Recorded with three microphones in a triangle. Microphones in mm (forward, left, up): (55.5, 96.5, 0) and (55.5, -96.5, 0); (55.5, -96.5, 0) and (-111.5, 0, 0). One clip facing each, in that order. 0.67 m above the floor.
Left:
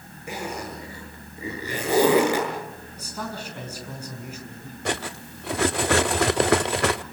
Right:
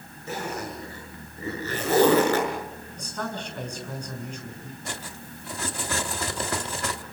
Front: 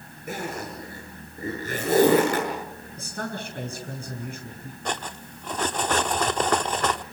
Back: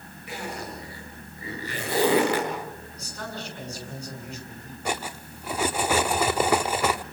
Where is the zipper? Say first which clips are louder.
Even, front 3 dB; 15° left, 7 m.